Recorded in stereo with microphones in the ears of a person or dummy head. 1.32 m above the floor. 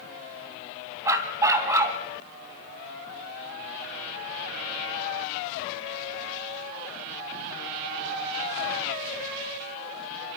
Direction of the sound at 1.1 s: 15° right (ahead or behind).